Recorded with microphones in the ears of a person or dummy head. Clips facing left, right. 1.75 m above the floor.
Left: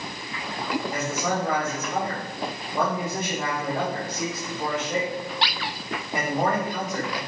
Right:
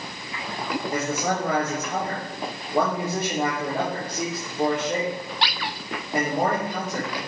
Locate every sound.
0.9 s a man speaking: 50° right (ahead or behind), 3 m